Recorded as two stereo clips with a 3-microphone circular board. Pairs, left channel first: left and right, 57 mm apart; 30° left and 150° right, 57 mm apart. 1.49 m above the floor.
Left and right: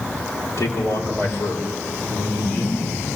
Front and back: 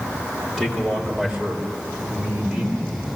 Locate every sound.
0.6 s a man speaking: 115° left, 3 m; by 3.0 s 150° left, 5 m